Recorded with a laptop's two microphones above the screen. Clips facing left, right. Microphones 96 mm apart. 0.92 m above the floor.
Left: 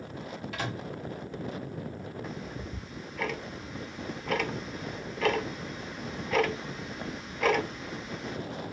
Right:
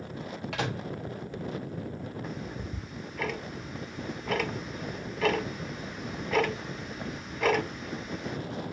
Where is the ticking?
Centre (ahead or behind), 0.6 m.